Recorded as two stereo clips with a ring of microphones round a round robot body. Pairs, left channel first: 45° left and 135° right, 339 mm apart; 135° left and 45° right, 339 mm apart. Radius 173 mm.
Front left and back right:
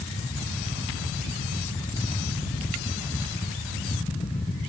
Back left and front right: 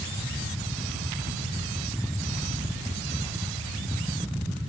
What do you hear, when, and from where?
Only background noise.